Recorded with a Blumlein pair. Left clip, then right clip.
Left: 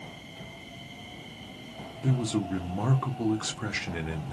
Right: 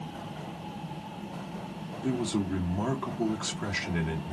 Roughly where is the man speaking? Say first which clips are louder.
Even; ahead.